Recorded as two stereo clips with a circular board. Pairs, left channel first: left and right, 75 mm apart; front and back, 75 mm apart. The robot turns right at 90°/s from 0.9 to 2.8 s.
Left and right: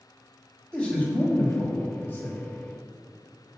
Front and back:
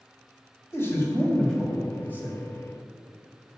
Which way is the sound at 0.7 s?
25° left.